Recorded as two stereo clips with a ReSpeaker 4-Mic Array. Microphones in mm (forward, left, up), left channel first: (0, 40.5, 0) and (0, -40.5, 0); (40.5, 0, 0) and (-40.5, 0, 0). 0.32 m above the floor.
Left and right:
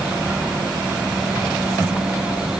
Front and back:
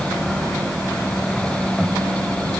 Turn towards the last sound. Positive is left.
No sound to turn to.